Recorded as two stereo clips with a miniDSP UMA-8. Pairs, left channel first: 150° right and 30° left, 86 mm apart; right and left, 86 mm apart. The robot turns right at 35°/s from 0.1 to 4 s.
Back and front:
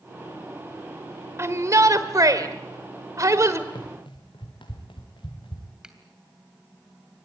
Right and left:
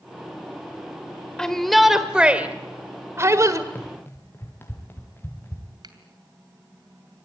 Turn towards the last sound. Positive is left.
turn(degrees=110)